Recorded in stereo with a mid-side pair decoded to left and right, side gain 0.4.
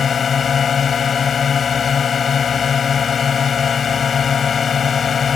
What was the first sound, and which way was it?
A drone, 45° left.